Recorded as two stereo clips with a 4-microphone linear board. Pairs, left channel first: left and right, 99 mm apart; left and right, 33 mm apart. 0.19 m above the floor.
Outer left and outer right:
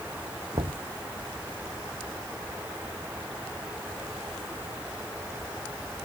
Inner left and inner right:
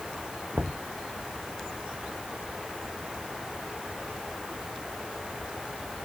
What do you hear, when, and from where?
0.5 s knocking: 70° right (ahead or behind)